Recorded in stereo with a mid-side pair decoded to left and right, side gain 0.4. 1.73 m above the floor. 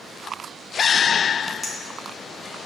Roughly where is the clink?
Ahead.